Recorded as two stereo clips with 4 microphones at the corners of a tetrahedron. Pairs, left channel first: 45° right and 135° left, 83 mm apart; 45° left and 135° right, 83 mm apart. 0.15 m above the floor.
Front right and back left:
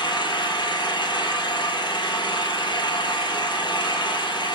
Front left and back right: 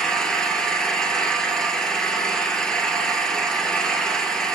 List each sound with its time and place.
0.0 s an engine running: 35° right, 1.3 m